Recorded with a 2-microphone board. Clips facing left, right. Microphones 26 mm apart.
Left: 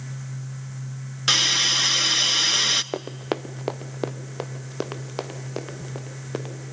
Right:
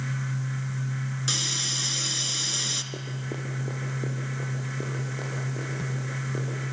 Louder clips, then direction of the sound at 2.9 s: Left 6 dB; 80° left.